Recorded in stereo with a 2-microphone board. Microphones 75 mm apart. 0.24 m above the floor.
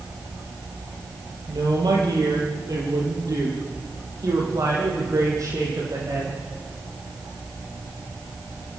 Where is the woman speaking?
65° right (ahead or behind), 9 m; by 6.4 s 50° right (ahead or behind), 11.5 m.